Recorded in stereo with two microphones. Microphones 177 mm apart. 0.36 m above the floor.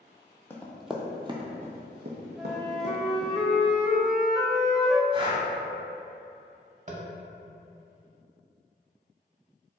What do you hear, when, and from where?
0.5 s running footsteps: 15° left (ahead or behind), 0.7 m; by 3.3 s 70° right (ahead or behind), 1.3 m
2.4 s a flute: 5° right (ahead or behind), 0.5 m
5.1 s breathing: 30° right (ahead or behind), 0.9 m
6.9 s tapping: 40° right (ahead or behind), 0.6 m